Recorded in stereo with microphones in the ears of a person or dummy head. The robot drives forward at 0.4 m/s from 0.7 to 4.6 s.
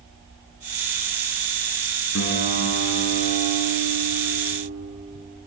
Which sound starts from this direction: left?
A guitar, at 2.1 s.